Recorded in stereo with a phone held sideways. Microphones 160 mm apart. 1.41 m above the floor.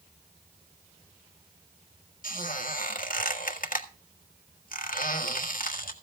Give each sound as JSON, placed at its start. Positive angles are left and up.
{"t": 2.2, "sound": "a squeak", "side_deg": 60, "distance_m": 1.5}